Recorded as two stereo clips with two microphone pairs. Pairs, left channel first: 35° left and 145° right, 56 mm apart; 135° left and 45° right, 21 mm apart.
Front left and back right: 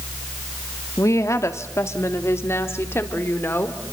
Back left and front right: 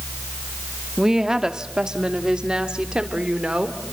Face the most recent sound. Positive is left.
turn(degrees=-10)